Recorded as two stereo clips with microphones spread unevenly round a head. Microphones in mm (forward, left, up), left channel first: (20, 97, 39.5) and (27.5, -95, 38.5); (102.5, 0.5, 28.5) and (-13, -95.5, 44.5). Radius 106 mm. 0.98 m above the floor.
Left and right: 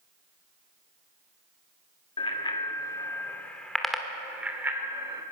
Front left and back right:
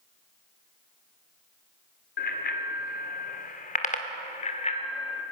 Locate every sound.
2.2 s a bicycle bell: 30° left, 2 m; by 5.2 s 15° right, 2.5 m